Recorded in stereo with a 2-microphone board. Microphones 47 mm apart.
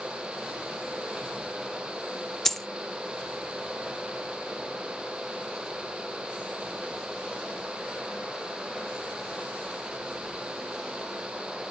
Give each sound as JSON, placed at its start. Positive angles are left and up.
{"t": 2.5, "sound": "a dropped coin", "side_deg": 10, "distance_m": 0.5}